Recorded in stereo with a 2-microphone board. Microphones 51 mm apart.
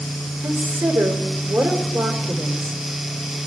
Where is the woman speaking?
50° right (ahead or behind), 1.8 m.